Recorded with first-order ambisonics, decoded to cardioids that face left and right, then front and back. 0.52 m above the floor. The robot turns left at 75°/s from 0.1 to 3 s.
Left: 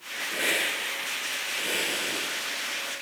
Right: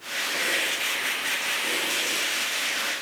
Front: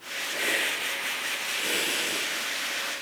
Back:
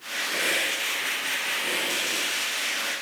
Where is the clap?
No clap in this recording.